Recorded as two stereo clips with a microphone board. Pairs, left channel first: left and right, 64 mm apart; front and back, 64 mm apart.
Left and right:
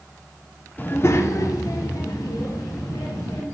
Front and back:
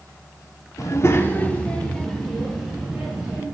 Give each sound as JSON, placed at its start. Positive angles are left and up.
{"t": 0.8, "sound": "a child speaking", "azimuth_deg": 30, "distance_m": 0.8}